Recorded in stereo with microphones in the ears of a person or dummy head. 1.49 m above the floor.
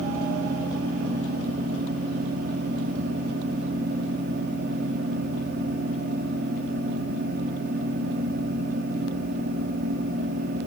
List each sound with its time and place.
Only background noise.